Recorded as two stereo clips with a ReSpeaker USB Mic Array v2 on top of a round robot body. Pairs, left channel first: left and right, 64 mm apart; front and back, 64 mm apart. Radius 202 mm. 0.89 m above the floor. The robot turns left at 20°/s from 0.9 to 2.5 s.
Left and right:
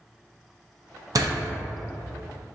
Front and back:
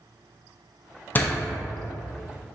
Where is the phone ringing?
I don't hear a phone ringing.